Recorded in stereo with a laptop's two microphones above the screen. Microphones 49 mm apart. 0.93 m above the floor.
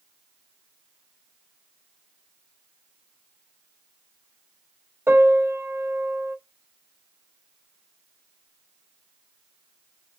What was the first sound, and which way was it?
A piano, 45° right (ahead or behind).